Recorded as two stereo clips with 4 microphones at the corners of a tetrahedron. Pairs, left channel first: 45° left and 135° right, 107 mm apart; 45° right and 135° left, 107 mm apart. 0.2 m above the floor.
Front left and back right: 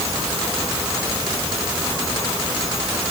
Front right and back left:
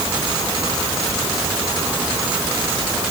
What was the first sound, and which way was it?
Only background noise.